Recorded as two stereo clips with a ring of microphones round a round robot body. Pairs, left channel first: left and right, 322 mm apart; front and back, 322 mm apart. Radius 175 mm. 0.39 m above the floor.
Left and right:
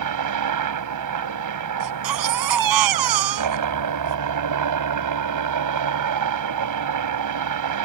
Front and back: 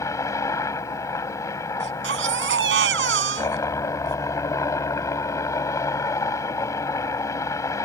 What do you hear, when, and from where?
0.0 s a helicopter: 80° right
1.8 s a baby crying: 120° right